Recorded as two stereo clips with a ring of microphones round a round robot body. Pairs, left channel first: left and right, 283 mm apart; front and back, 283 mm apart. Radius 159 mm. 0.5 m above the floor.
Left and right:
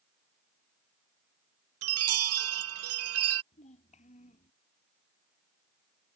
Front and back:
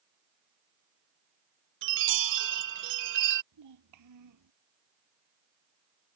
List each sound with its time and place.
1.8 s a chime: 130° right
3.5 s a child speaking: 160° left